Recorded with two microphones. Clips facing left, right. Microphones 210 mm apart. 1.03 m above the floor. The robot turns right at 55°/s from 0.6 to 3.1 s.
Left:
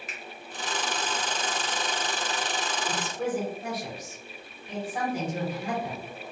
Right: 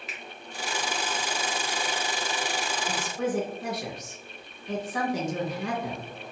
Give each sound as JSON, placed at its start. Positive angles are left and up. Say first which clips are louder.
{"t": 0.1, "sound": "a finger snap", "louder": "even", "side_deg": 45, "distance_m": 0.9}
{"t": 2.9, "sound": "a woman speaking", "louder": "right 1 dB", "side_deg": -65, "distance_m": 0.9}